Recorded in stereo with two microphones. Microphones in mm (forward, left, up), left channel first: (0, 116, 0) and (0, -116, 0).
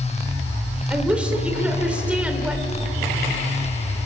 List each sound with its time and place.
0.9 s a woman speaking: 5° right (ahead or behind), 3.5 m